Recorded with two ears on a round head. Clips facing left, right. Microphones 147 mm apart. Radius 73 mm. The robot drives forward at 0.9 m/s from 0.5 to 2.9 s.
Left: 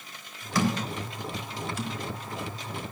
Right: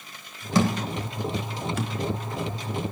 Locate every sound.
0.6 s a thud: 20° right (ahead or behind), 1.3 m; by 1.9 s 45° right (ahead or behind), 0.6 m